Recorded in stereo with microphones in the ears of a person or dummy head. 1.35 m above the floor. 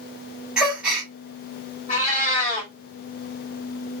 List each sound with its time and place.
0.6 s a gasp: 5° right (ahead or behind), 1.5 m
1.9 s a cat meowing: 45° left (ahead or behind), 1.8 m